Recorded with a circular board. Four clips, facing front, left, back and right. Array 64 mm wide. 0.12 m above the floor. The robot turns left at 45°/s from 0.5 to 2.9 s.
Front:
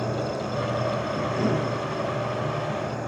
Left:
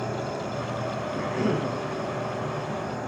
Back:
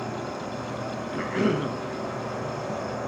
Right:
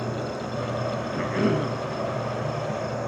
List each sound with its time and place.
0.0 s an insect: 20° right, 6.5 m; by 3.1 s 130° right, 6.5 m
1.1 s a cough: 135° right, 1.6 m; by 1.7 s 165° right, 1.6 m